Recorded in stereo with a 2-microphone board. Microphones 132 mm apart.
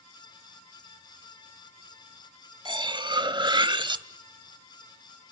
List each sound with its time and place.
2.6 s cutlery clinking: 35° right (ahead or behind), 0.8 m